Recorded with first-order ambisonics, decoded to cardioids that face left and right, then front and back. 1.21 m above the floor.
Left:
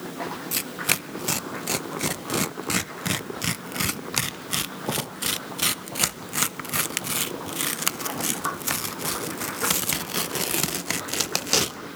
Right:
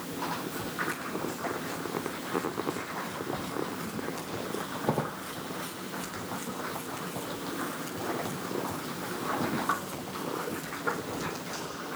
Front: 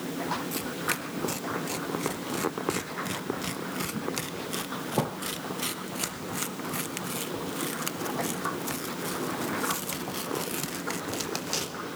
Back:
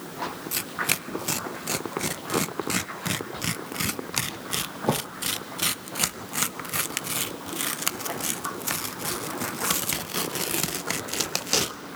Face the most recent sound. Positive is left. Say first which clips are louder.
# left 7 dB, back 3 dB
turn(degrees=115)